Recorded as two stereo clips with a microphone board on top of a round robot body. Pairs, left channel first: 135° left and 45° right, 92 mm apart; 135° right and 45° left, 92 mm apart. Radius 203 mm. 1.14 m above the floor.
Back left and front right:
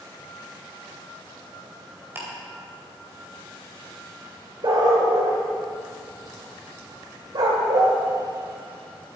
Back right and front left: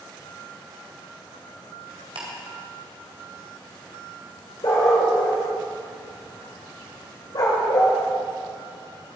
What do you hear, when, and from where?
2.1 s ticking: 20° left, 2.5 m
4.6 s a dog barking: 90° right, 1.4 m